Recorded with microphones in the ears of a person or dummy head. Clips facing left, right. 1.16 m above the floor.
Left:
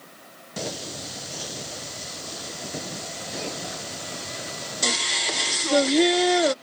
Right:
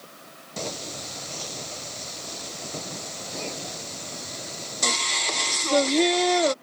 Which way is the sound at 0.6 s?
15° left (ahead or behind).